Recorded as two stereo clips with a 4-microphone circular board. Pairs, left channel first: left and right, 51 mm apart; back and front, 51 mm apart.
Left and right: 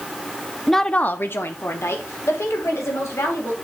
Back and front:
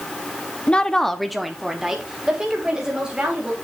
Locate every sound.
0.7 s a woman speaking: 175° right, 0.6 m; by 3.5 s 75° left, 3.5 m